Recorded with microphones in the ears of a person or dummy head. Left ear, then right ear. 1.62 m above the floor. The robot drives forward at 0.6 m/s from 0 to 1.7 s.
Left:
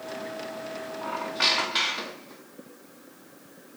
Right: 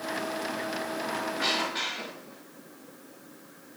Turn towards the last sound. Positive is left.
turn(degrees=55)  # may be behind; listen again after turning